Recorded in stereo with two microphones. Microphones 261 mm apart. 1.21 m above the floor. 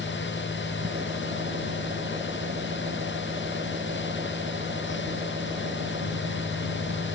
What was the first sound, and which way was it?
An engine running, 30° right (ahead or behind).